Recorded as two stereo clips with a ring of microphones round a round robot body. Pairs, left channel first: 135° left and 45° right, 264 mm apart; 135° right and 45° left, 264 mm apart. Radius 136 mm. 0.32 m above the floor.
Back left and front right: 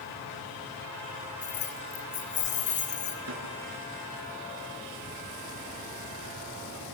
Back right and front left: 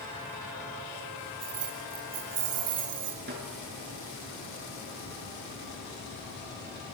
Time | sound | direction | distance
1.4 | keys jangling | 70° left | 2.5 m
3.3 | a snare drum | 5° right | 5.5 m